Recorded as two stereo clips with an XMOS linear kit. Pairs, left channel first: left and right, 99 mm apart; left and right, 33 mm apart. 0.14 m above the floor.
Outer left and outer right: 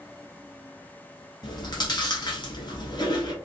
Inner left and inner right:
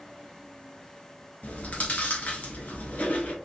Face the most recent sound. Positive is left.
turn(degrees=50)  # may be behind; listen again after turning